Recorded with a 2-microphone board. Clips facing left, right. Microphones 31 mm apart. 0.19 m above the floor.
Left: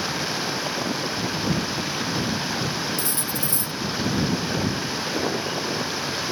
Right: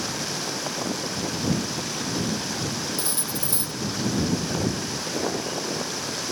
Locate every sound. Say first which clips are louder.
0.0 s running water: left 3 dB; 25° left (ahead or behind)
3.0 s cutlery clinking: left 2 dB; 35° right (ahead or behind)